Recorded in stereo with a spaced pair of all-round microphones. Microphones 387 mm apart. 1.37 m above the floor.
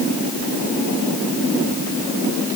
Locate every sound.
Only background noise.